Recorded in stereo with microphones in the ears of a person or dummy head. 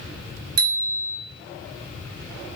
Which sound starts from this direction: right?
A bicycle bell, at 0.6 s.